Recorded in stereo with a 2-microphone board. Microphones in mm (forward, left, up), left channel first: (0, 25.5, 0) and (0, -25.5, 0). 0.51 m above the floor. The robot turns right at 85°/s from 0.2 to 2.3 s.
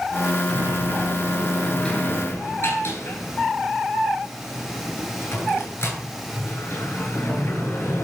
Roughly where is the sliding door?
Right.